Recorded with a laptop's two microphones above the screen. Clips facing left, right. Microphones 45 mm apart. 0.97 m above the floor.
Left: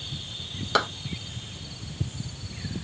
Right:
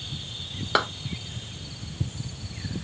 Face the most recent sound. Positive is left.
turn(degrees=-10)  # may be behind; listen again after turning